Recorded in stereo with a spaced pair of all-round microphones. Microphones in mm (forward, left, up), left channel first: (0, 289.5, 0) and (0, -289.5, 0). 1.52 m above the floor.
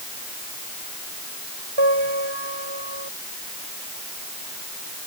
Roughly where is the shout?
No shout in this recording.